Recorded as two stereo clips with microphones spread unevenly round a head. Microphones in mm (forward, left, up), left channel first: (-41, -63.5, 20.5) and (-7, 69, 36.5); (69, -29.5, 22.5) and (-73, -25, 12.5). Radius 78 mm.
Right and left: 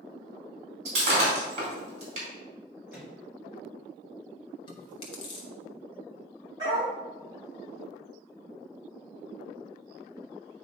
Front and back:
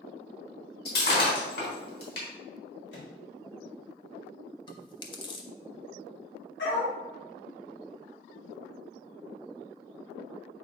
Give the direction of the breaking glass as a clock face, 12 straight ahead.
11 o'clock.